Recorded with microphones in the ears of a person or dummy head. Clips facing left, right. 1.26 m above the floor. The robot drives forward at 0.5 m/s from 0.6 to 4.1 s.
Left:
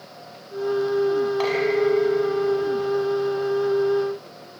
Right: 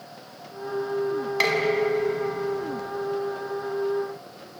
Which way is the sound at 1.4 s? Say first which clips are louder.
Left 3 dB; 35° right (ahead or behind).